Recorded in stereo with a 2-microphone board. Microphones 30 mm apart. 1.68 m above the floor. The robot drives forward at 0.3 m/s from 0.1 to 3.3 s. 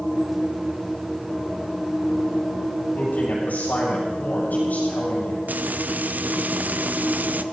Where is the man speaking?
75° left (ahead or behind), 8 m.